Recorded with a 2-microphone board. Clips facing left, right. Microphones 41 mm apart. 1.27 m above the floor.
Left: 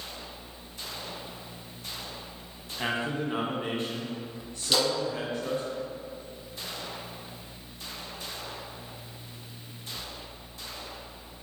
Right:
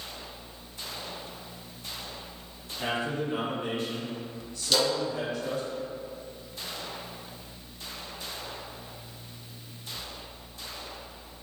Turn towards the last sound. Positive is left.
turn(degrees=15)  # may be behind; listen again after turning